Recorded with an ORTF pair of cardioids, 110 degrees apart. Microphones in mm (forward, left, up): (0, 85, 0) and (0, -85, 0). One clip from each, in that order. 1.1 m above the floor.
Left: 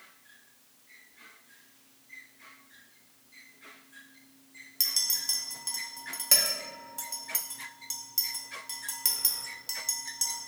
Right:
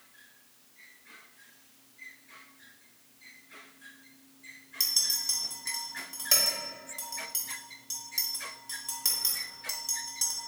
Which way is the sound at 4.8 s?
15° left.